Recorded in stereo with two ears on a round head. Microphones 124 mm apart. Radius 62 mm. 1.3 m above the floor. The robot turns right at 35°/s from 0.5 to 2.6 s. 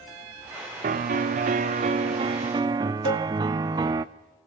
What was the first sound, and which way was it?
A piano, 95° right.